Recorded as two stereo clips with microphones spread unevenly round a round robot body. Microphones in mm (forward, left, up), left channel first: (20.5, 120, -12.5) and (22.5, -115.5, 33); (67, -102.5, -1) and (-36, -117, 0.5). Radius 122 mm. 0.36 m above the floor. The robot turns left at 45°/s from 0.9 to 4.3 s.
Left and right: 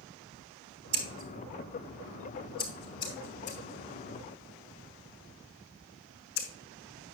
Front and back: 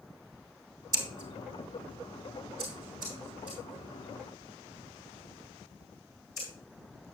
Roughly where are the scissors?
Behind right.